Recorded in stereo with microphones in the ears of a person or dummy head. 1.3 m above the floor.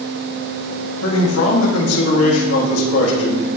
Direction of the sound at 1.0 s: 85° left.